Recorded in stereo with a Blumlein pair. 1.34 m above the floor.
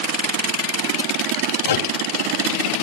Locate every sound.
1.6 s a microwave: 60° left, 1.1 m